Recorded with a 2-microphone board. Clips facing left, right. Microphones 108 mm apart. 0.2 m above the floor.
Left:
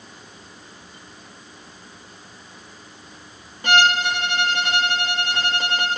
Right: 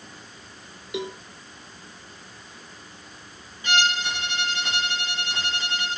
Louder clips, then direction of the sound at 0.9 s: Right 15 dB; 85° right.